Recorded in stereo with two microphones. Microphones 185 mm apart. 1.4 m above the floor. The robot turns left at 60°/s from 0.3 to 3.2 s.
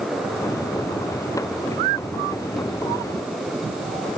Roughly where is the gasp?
No gasp in this recording.